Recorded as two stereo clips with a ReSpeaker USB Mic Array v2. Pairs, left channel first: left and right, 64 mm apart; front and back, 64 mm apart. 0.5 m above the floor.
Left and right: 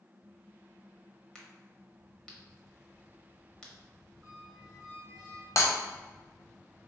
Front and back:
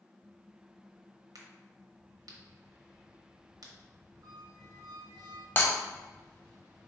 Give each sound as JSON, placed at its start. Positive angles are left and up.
{"t": 1.4, "sound": "a crack", "azimuth_deg": 165, "distance_m": 1.1}
{"t": 4.2, "sound": "a squeak", "azimuth_deg": -170, "distance_m": 1.4}
{"t": 5.6, "sound": "breaking glass", "azimuth_deg": 55, "distance_m": 1.1}